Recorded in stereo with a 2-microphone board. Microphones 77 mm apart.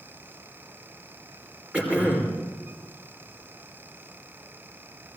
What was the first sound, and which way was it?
Throat clearing, 15° right (ahead or behind).